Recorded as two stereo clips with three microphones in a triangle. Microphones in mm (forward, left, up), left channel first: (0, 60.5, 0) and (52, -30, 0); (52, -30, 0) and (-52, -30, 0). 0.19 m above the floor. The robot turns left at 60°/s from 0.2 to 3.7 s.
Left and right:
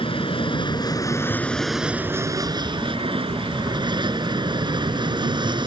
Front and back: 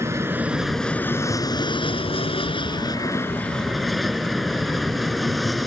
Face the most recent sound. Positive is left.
turn(degrees=-90)